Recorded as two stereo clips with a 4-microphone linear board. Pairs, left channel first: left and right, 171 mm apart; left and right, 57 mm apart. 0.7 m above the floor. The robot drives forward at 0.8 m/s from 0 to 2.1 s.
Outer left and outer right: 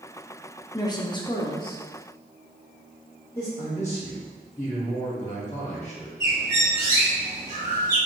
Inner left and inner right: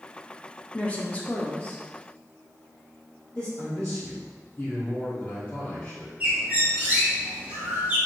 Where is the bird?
20° right (ahead or behind), 1.6 m.